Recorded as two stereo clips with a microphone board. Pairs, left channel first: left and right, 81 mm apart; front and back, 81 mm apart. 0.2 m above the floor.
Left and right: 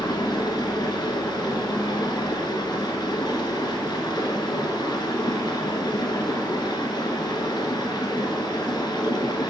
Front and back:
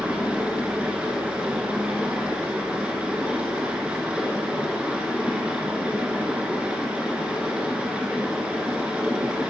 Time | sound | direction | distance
0.0 | running water | 105° left | 1.0 m